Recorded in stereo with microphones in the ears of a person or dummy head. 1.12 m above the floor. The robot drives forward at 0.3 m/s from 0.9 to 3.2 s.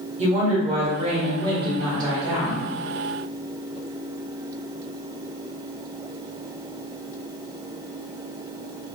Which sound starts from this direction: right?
A woman speaking, at 0.2 s.